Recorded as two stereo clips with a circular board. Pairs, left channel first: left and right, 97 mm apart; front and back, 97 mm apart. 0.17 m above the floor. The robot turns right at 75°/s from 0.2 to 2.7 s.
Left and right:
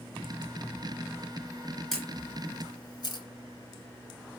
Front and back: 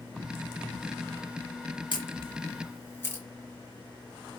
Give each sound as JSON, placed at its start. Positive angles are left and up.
{"t": 1.9, "sound": "a camera shutter", "azimuth_deg": 0, "distance_m": 2.5}